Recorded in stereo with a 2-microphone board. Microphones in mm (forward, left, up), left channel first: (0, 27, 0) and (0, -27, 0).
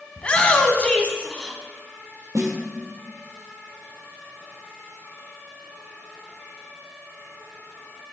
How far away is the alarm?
No alarm in this recording.